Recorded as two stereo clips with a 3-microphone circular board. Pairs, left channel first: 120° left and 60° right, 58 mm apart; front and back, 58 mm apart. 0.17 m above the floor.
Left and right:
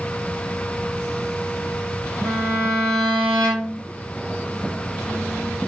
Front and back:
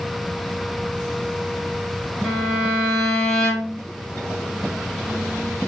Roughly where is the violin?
Left.